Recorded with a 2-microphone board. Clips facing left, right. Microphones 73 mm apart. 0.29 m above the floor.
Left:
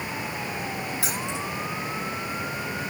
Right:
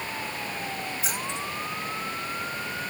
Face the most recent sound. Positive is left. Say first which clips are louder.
# left 2 dB
turn(degrees=85)